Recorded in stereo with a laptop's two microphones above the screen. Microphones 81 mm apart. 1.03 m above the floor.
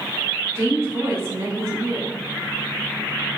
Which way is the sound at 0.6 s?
30° right (ahead or behind).